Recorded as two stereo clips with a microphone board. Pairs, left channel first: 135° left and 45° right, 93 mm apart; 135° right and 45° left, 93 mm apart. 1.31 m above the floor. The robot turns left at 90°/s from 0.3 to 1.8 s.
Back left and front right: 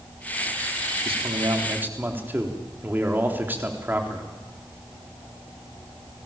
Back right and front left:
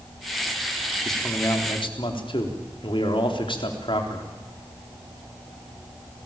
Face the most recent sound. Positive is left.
turn(degrees=-115)